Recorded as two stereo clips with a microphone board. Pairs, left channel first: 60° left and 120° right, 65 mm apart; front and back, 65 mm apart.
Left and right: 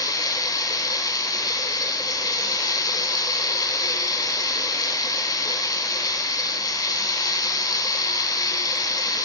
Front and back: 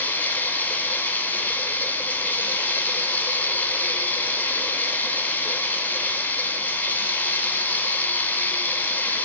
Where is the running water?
60° left, 1.9 m.